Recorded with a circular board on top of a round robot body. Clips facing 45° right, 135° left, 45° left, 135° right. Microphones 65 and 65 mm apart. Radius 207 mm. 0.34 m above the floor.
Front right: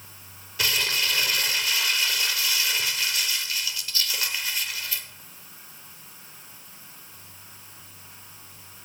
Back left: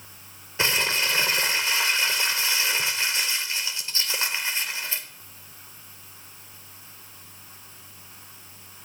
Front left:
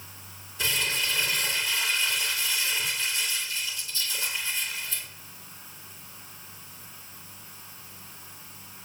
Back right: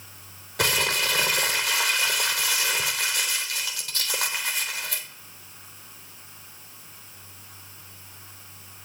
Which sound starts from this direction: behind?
Crumpling, at 0.6 s.